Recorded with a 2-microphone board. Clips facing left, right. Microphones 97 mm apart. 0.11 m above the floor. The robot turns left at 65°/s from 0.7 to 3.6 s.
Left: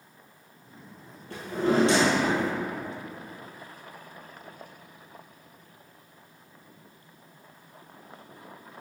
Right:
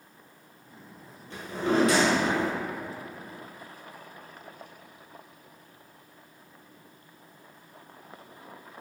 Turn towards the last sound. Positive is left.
turn(degrees=-80)